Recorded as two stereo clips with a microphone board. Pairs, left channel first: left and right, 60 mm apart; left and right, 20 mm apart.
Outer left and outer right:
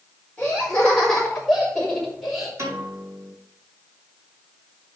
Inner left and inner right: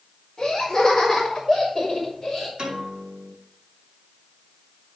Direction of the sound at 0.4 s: 15° left (ahead or behind).